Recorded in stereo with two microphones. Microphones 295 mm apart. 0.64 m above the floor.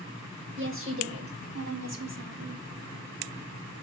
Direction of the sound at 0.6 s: 45° right (ahead or behind).